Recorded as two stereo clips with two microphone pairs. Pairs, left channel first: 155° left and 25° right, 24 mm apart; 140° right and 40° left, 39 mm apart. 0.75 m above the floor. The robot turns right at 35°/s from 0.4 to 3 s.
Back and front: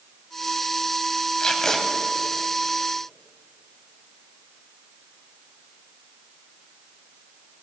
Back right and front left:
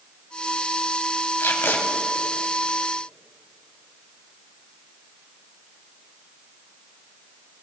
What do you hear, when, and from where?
1.4 s tape being pulled: 145° right, 1.6 m; by 1.8 s 130° right, 1.6 m